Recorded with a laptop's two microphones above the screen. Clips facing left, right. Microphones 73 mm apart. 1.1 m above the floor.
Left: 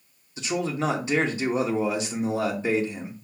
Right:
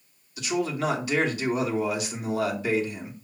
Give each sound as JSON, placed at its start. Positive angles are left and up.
{"t": 0.4, "sound": "a man speaking", "side_deg": 30, "distance_m": 1.7}